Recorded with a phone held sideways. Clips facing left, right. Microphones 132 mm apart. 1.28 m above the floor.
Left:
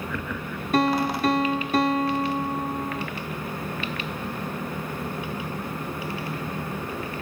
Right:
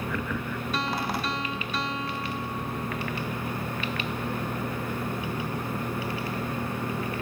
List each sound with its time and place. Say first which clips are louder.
0.7 s a piano: left 10 dB; 50° left (ahead or behind)